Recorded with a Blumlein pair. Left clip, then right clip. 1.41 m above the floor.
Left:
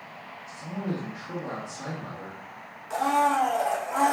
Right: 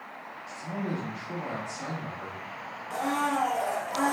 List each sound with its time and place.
0.5 s a man speaking: 10° left, 1.4 m
2.9 s a blender: 25° left, 0.9 m